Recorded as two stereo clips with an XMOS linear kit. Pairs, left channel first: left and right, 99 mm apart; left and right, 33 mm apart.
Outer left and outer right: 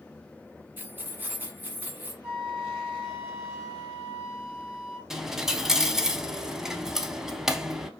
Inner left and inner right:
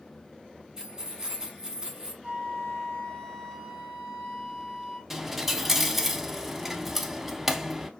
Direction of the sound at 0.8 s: 20° right (ahead or behind).